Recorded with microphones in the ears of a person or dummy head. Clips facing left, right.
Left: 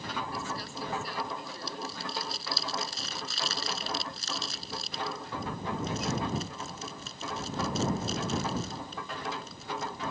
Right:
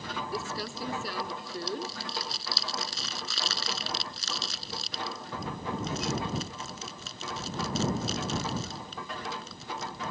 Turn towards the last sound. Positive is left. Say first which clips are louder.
# right 2 dB
turn(degrees=-65)  # may be behind; listen again after turning